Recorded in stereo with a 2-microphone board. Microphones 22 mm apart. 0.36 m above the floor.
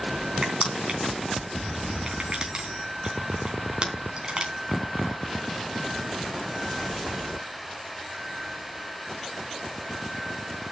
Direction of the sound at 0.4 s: 40° right (ahead or behind).